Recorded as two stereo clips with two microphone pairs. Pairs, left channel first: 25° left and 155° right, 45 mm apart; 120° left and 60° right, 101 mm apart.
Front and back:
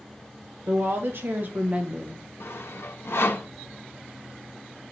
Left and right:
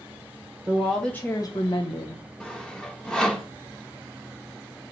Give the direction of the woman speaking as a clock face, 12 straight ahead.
4 o'clock.